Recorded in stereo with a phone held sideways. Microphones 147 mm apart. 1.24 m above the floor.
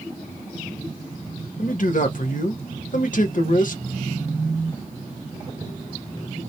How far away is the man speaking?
About 0.9 m.